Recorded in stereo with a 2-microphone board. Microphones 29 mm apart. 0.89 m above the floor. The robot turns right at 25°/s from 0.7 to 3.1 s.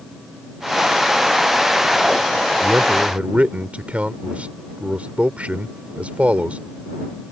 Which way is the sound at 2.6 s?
60° right (ahead or behind).